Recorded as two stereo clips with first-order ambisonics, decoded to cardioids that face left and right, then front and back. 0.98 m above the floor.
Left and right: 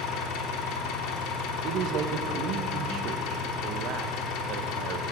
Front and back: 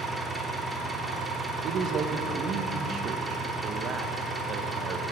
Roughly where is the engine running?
Left.